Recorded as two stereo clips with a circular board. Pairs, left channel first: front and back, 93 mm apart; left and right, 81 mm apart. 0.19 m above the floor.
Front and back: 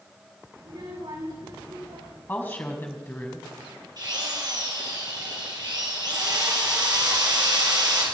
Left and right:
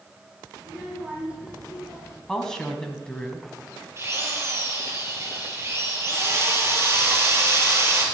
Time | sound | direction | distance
0.6 | a child speaking | 160° right | 7.5 m
2.3 | a woman speaking | 20° left | 1.6 m
4.0 | a drill | 140° right | 3 m